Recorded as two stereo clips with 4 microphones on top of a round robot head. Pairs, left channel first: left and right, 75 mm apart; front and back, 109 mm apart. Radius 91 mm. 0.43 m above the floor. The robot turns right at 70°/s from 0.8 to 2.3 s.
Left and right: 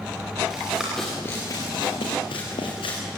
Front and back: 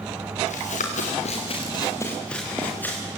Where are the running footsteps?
Straight ahead, 5 m; by 3.0 s 70° left, 6 m.